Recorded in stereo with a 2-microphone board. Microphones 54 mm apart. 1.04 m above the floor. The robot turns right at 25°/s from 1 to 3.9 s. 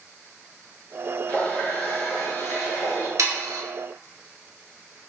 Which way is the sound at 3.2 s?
75° right (ahead or behind).